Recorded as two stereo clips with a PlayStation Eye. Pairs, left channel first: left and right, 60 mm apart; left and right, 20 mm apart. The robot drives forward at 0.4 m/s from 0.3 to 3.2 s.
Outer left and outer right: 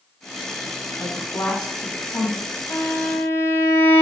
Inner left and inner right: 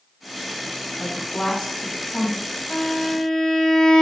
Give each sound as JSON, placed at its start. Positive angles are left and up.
{"t": 1.0, "sound": "a woman speaking", "side_deg": 65, "distance_m": 2.0}
{"t": 2.7, "sound": "a violin", "side_deg": 60, "distance_m": 0.5}